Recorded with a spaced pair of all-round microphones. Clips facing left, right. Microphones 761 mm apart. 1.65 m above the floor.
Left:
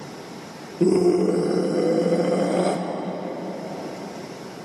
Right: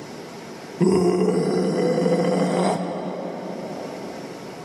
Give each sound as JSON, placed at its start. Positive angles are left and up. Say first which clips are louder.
{"t": 0.8, "sound": "a scream", "louder": "left 1 dB", "side_deg": -35, "distance_m": 0.8}